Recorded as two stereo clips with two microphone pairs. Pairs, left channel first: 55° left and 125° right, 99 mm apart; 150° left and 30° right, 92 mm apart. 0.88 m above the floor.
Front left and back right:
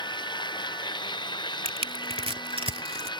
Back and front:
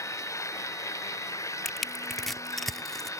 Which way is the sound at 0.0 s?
95° left.